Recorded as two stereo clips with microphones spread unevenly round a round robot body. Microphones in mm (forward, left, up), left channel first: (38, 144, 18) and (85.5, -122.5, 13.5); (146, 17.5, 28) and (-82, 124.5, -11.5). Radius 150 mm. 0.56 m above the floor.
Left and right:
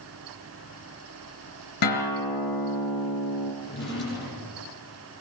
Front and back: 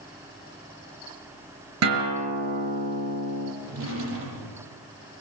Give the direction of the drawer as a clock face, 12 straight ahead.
7 o'clock.